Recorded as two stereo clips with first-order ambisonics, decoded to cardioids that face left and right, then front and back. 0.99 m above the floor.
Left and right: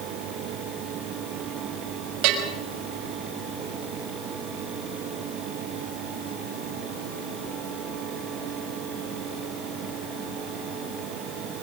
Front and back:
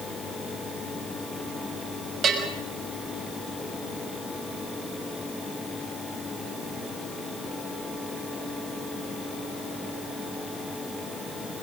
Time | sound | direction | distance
2.2 | a bell | 120° right | 6 m